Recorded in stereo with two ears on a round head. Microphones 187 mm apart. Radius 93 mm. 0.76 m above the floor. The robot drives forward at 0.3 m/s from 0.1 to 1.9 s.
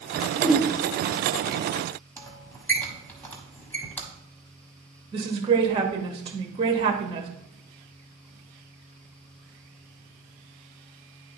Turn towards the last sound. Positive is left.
turn(degrees=-25)  # may be behind; listen again after turning